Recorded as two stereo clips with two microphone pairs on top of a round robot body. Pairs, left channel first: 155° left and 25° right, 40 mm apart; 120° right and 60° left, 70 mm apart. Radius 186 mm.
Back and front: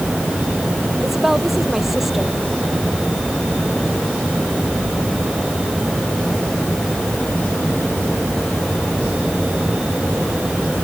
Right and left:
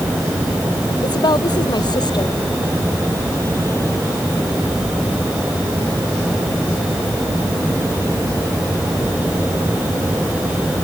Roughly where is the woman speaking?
Right.